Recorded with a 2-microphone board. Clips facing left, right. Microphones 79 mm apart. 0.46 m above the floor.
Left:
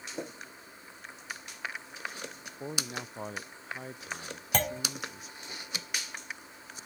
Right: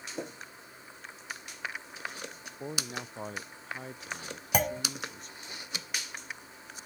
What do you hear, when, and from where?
2.6 s a man speaking: centre (ahead or behind); by 5.5 s 5° left (ahead or behind)
4.5 s a clunk: 10° right (ahead or behind)